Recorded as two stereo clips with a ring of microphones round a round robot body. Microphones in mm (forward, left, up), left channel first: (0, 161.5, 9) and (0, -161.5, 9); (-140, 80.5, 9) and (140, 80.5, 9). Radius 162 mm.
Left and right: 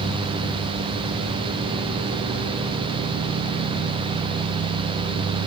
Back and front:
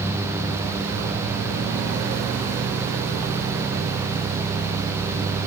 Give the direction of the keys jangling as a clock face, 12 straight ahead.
I don't hear keys jangling.